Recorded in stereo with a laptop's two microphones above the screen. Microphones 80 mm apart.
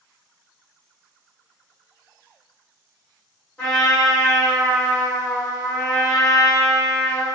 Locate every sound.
3.6 s a trumpet: 15° left (ahead or behind), 2.0 m